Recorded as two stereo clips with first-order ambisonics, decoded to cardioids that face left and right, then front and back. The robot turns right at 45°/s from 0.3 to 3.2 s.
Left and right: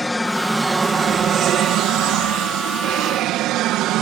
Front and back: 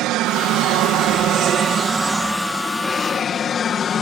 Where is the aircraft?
170° left; by 4.0 s 60° right.